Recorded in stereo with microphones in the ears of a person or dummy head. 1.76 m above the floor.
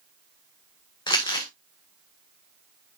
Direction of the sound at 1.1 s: 25° left (ahead or behind).